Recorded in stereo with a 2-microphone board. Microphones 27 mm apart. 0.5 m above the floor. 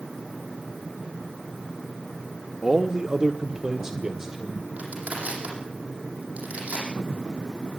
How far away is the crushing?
About 7.5 m.